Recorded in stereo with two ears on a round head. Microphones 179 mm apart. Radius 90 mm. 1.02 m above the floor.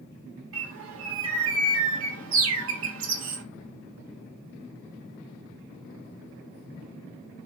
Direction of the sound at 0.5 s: 75° right (ahead or behind).